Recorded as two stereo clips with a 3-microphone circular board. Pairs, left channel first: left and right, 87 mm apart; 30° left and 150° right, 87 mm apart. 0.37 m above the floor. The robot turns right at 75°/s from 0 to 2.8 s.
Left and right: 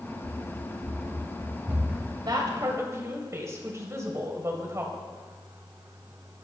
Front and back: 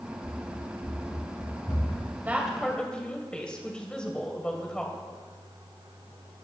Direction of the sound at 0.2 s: 135° right.